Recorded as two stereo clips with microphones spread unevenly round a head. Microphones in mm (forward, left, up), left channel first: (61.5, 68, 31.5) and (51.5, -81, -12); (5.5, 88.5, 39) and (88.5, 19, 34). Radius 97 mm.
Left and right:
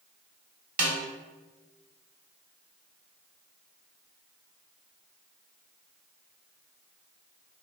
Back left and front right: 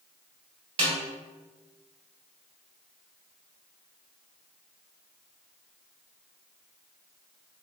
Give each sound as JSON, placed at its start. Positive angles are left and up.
{"t": 0.8, "sound": "a snare drum", "azimuth_deg": -70, "distance_m": 1.7}